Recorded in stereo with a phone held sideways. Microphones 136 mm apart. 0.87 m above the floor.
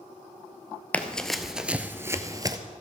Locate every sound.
0.9 s running footsteps: 10° left (ahead or behind), 1.0 m; by 2.6 s 30° right (ahead or behind), 1.0 m